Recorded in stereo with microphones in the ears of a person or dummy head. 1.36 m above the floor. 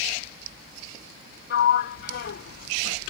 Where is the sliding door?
60° left (ahead or behind).